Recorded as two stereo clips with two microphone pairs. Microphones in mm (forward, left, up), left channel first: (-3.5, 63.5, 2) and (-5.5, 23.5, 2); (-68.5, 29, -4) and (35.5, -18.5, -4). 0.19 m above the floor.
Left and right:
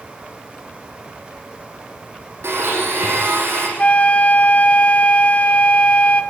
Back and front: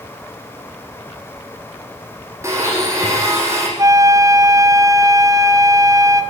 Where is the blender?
90° right, 7.5 m.